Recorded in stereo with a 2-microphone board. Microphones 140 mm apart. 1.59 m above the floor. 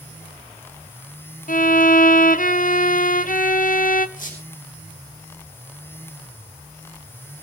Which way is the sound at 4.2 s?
60° left (ahead or behind).